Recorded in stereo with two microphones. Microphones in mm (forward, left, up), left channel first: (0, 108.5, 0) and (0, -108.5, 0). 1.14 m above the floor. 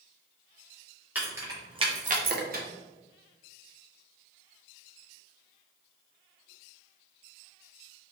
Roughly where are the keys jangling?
Centre.